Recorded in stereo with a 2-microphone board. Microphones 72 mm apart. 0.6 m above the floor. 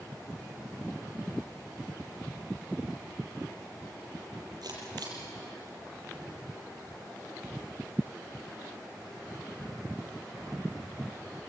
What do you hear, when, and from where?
4.6 s a camera shutter: 65° right (ahead or behind), 6.5 m